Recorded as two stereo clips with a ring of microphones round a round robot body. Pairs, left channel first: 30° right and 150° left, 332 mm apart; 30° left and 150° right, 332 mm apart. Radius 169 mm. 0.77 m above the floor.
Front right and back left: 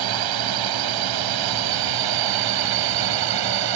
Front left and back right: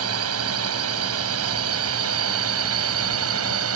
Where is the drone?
165° left; by 3.8 s 160° left.